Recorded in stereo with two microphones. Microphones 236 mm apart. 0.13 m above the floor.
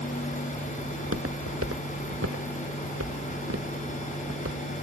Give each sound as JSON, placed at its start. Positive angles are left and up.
{"t": 0.9, "sound": "footsteps", "side_deg": -75}